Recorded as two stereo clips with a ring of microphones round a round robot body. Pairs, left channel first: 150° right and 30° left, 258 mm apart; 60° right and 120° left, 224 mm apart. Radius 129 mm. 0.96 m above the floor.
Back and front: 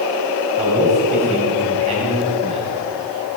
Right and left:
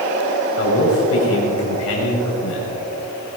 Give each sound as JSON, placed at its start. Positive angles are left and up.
{"t": 0.6, "sound": "a man speaking", "azimuth_deg": -35, "distance_m": 5.5}